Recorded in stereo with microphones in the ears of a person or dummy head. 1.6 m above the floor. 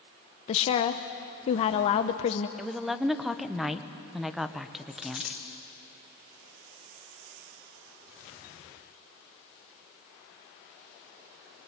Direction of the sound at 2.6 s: 5° right (ahead or behind).